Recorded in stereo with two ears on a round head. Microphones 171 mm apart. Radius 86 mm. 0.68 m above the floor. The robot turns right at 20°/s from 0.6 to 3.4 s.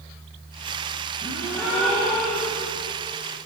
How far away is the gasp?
About 9 m.